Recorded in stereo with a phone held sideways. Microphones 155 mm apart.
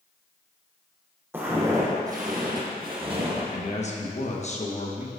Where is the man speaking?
45° left (ahead or behind), 1.2 m.